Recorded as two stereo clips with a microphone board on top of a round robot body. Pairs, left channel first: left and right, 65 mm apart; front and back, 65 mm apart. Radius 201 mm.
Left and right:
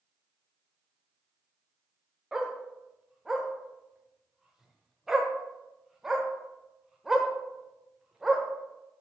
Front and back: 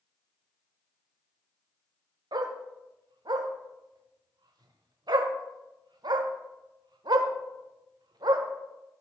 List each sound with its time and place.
2.3 s a dog barking: 175° right, 0.8 m